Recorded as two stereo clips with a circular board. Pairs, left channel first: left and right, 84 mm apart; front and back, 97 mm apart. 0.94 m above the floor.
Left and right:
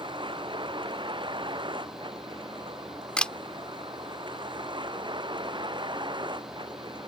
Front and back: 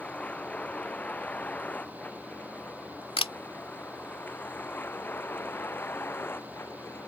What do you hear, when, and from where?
0.0 s a vehicle: 75° right; by 7.1 s 65° right
3.2 s a camera shutter: 10° left